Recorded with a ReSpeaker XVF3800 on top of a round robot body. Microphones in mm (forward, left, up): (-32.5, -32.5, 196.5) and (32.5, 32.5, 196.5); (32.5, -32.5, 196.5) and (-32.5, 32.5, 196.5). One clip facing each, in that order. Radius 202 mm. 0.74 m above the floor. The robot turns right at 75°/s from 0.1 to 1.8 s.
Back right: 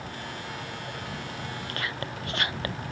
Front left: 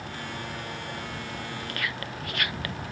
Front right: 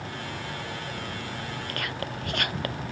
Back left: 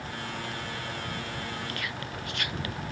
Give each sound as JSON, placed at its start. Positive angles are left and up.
{"t": 1.7, "sound": "whispering", "azimuth_deg": -85}